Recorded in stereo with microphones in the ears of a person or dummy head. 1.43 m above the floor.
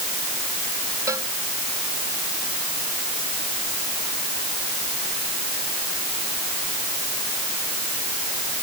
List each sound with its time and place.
1.1 s a cowbell: 15° right (ahead or behind)